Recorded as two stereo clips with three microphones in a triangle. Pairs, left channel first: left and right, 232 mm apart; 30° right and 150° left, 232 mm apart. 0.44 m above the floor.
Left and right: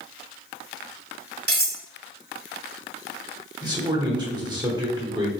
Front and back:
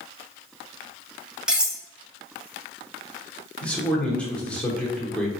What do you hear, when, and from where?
1.5 s cutlery clinking: 125° right, 0.9 m
3.6 s a man speaking: 100° right, 1.0 m